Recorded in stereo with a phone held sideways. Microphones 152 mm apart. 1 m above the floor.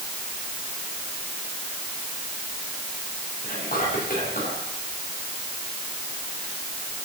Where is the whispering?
80° left, 6.5 m.